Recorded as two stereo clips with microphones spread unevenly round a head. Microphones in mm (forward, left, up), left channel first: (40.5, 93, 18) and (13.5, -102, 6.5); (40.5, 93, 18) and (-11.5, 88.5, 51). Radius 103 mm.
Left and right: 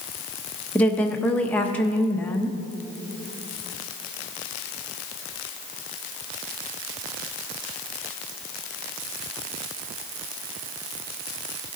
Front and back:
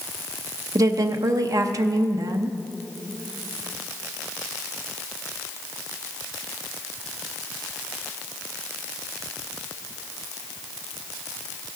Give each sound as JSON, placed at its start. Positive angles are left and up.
{"t": 0.8, "sound": "a woman speaking", "azimuth_deg": 165, "distance_m": 0.6}